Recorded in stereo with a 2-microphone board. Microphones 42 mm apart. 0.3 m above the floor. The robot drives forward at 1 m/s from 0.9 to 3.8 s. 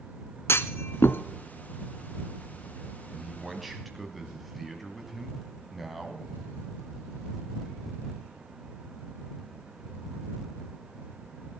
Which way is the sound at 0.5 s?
85° left.